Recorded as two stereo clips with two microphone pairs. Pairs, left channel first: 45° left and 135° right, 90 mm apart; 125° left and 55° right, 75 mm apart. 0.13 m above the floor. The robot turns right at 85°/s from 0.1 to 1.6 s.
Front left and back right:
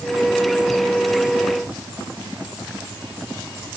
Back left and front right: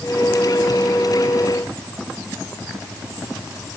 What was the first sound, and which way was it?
Only background noise.